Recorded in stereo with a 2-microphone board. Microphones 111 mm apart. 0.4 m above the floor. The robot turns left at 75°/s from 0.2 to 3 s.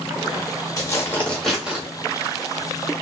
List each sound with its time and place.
0.8 s tearing paper: 55° left, 1.0 m; by 1.8 s 25° right, 1.0 m